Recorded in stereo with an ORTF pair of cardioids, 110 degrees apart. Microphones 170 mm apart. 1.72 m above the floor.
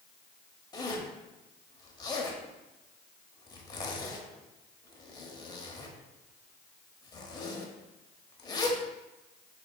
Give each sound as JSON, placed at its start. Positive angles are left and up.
{"t": 0.7, "sound": "a zipper", "azimuth_deg": 25, "distance_m": 0.8}